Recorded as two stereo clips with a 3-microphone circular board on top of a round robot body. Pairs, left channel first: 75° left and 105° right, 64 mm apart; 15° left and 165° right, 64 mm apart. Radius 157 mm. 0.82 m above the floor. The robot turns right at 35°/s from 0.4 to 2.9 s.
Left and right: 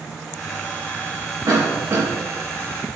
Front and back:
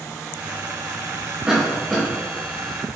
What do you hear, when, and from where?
1.5 s a cough: 95° right, 2 m; by 2.1 s 75° right, 2 m